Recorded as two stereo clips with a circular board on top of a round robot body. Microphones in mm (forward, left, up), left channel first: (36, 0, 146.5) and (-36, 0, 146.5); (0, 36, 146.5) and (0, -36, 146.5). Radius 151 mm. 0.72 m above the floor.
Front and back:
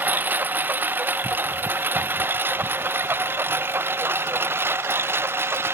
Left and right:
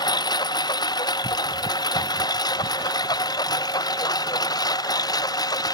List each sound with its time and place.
0.0 s a lawn mower: 115° left; by 5.8 s 120° left